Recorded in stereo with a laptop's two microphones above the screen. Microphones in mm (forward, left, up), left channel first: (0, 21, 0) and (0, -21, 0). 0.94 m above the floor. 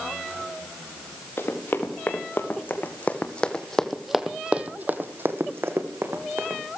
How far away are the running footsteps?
About 4 m.